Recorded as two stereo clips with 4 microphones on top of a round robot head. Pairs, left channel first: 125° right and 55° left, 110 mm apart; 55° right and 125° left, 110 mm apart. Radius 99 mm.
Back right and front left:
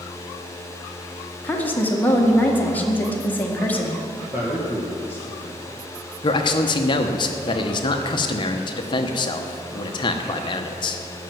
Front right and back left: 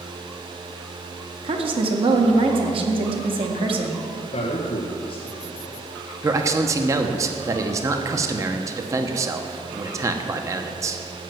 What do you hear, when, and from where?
1.4 s a woman speaking: 160° left, 1.8 m
4.3 s a man speaking: 20° right, 1.7 m
6.2 s a man speaking: 170° right, 1.0 m